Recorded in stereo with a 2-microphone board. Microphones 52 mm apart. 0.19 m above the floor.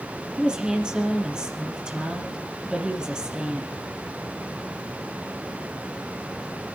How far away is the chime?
I don't hear a chime.